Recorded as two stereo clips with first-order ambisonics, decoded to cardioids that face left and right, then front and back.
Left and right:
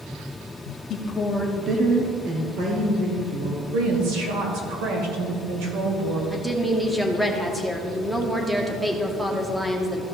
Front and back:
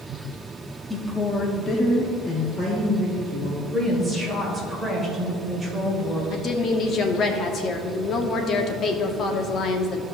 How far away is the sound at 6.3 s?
About 0.7 m.